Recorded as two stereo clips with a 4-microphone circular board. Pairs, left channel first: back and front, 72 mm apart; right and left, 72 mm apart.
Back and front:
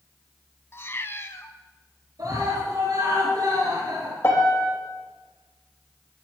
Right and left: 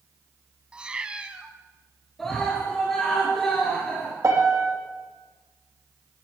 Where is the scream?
5° right, 4 m.